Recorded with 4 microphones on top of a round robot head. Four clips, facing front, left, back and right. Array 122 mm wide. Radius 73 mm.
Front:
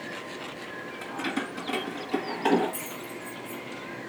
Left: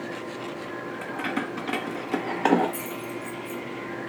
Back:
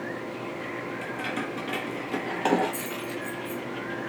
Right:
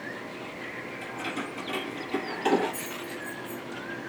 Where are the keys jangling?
65° left, 1.8 m; by 3.6 s 115° left, 2 m.